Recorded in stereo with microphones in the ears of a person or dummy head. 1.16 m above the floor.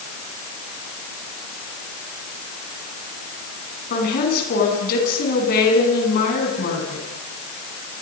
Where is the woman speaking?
50° left (ahead or behind), 9 m.